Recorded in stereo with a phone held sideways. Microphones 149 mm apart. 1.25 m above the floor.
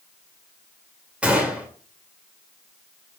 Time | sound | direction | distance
1.2 | a gunshot | 5° right (ahead or behind) | 2.5 m